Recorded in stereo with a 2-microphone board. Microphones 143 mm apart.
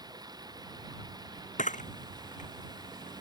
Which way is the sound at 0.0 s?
30° right (ahead or behind).